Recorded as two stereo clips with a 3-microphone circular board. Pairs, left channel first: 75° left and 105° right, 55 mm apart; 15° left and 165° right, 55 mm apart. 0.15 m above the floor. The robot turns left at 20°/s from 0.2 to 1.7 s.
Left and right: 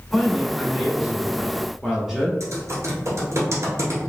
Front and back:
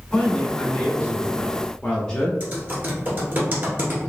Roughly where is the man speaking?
Ahead.